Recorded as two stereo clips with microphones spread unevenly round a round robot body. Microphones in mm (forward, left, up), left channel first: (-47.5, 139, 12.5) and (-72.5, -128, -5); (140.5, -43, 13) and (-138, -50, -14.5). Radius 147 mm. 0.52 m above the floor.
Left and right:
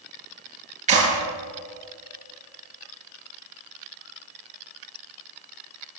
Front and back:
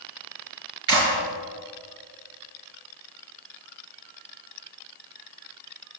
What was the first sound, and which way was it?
A clap, 160° right.